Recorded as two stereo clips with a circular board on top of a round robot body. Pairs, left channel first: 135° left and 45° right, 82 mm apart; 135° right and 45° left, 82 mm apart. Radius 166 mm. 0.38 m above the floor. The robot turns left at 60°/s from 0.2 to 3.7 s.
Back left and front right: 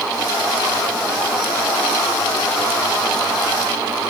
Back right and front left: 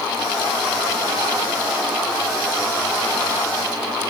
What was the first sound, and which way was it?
Only background noise.